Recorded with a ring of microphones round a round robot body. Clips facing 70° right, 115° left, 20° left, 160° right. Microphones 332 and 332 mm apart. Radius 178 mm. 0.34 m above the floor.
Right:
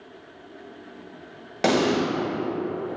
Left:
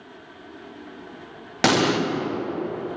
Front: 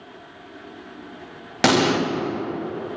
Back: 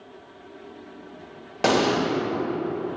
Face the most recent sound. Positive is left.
turn(degrees=60)